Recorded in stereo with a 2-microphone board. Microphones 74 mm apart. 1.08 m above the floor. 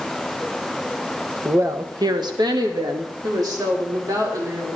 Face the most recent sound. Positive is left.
turn(degrees=-55)  # may be behind; listen again after turning